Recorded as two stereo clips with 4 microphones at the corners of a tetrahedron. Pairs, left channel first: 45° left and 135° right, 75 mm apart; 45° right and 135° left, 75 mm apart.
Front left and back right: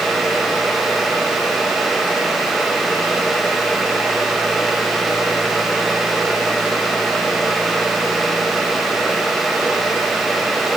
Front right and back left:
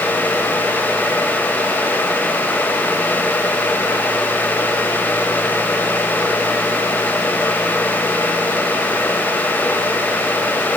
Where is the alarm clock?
No alarm clock in this recording.